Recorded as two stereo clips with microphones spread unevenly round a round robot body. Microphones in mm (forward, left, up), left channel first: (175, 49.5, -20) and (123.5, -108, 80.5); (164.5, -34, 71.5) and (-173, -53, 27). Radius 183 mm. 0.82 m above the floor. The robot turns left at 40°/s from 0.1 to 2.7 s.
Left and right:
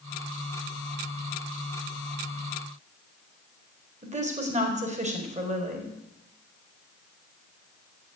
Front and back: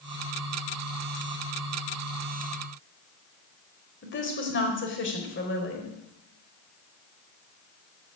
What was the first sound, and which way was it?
A woman speaking, 55° right.